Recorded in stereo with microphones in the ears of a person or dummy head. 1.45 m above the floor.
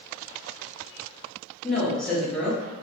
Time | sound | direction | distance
1.6 | a woman speaking | centre (ahead or behind) | 0.9 m